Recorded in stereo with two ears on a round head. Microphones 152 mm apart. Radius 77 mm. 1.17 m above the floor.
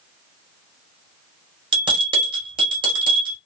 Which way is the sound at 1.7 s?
30° right (ahead or behind).